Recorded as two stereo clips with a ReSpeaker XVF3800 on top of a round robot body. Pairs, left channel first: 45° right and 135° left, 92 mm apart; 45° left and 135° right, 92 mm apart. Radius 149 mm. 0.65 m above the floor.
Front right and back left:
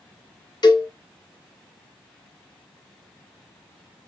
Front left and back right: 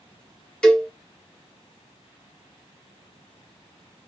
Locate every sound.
0.6 s a cowbell: 35° right, 1.0 m